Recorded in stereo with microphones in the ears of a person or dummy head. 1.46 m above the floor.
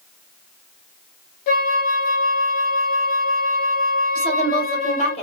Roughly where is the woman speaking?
Left.